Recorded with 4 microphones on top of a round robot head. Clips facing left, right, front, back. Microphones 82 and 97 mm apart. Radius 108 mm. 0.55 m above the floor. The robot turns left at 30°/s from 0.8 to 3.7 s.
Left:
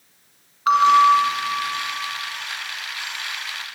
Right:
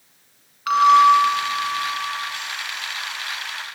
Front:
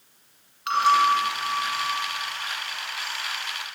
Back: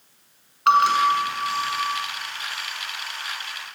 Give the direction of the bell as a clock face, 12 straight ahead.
7 o'clock.